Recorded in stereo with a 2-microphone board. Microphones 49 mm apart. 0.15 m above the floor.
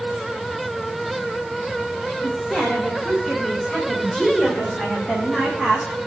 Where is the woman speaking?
25° left (ahead or behind), 7.5 m; by 5.9 s 5° left (ahead or behind), 6.5 m.